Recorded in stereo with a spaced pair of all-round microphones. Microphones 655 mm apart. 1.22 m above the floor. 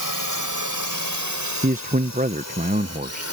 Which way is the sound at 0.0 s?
30° right (ahead or behind).